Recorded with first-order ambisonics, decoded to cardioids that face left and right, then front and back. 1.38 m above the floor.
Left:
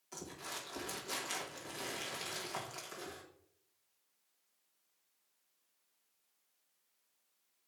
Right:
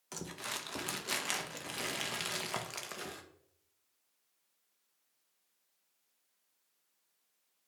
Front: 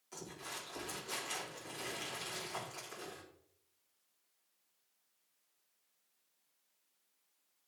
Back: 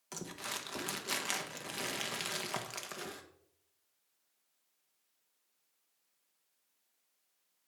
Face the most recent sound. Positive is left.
turn(degrees=-135)